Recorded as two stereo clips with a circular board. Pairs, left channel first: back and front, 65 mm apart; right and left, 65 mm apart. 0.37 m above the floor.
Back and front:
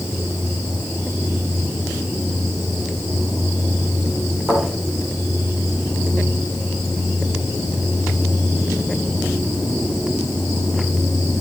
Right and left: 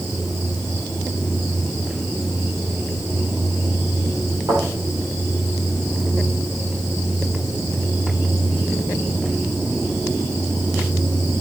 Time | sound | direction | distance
4.5 | a thud | 90° left | 7.5 m